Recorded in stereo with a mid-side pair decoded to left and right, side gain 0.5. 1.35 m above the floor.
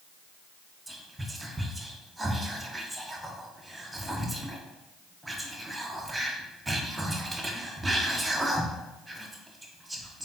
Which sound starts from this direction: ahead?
Whispering, at 0.9 s.